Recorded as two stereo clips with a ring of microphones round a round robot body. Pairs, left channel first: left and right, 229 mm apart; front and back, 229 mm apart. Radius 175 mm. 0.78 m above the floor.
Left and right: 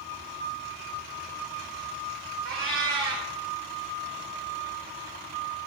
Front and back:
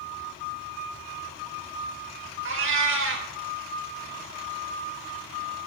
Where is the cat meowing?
165° right, 0.7 m.